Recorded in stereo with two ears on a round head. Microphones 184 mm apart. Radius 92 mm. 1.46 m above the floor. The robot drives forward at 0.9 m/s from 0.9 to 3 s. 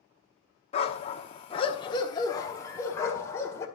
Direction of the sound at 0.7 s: 30° left (ahead or behind).